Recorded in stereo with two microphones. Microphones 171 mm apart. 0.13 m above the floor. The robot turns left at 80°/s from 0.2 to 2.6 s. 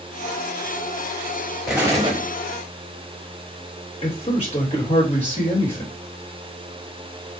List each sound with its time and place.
1.7 s an explosion: 5° right, 1.3 m; by 2.2 s 50° right, 1.3 m
4.0 s a man speaking: 35° left (ahead or behind), 3 m